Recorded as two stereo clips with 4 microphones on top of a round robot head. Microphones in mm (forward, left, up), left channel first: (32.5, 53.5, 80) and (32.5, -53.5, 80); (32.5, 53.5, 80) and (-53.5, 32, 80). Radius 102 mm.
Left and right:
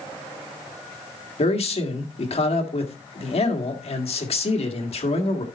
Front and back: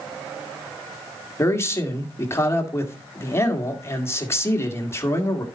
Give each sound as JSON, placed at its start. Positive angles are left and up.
{"t": 1.4, "sound": "a man speaking", "azimuth_deg": 75, "distance_m": 2.0}